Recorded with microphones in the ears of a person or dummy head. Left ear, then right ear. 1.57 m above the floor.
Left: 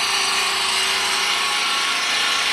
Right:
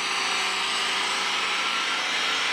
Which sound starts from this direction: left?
An engine running, at 0.0 s.